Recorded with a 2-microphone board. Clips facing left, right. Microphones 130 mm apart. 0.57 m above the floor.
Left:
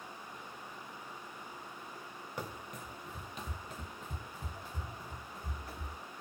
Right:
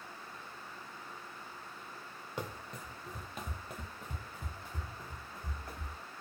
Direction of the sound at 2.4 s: 25° right (ahead or behind).